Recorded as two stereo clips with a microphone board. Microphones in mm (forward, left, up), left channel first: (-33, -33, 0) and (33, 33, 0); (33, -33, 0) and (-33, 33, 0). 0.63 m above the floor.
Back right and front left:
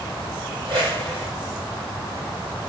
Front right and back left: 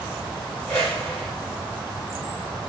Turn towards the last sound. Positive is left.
turn(degrees=25)